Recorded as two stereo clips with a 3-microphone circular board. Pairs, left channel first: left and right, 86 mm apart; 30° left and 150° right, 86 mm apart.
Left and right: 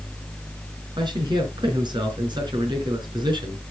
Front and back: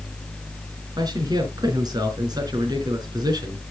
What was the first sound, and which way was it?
A man speaking, 115° right.